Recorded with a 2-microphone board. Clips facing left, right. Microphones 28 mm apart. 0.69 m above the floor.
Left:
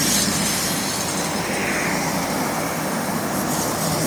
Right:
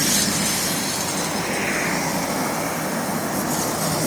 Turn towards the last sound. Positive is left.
No sound to turn to.